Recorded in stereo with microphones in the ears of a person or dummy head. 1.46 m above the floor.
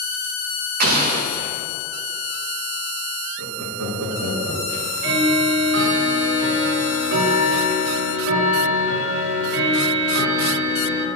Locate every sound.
0.8 s an explosion: 50° right (ahead or behind), 0.9 m
3.4 s laughter: 75° right (ahead or behind), 1.8 m
4.7 s ticking: 60° right (ahead or behind), 1.3 m